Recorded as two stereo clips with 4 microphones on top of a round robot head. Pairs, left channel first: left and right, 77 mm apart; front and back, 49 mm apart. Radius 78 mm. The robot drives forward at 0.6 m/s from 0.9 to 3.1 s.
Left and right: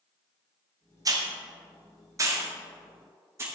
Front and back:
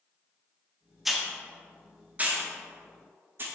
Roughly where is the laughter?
No laughter in this recording.